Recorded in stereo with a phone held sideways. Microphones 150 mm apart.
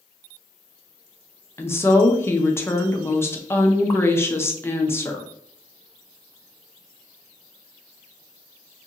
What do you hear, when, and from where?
1.6 s a woman speaking: 15° left (ahead or behind), 0.6 m